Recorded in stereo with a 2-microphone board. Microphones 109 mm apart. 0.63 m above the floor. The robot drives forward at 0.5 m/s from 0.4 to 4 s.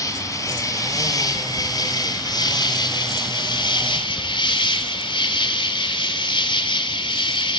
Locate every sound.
0.0 s an insect: 30° left (ahead or behind), 4 m; by 7.6 s 50° left (ahead or behind), 2.5 m